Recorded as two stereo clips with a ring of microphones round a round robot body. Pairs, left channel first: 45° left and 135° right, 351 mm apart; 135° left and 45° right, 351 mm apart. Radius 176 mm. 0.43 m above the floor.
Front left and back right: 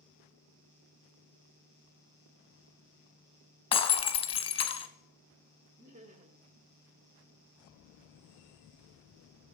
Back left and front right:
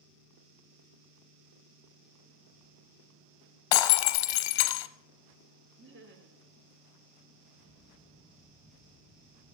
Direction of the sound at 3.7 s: 120° left.